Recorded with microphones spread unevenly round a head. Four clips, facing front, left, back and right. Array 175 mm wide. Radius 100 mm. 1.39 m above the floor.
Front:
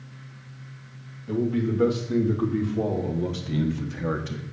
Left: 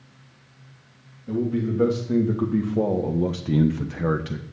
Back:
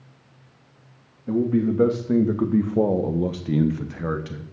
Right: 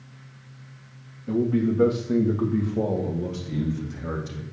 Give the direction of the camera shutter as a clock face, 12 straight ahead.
I don't hear a camera shutter.